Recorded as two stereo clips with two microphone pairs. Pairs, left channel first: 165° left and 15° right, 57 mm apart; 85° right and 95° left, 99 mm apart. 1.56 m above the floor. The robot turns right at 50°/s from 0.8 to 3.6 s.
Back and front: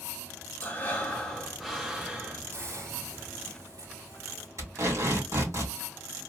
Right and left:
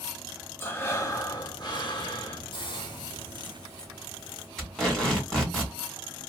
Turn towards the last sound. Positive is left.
turn(degrees=-5)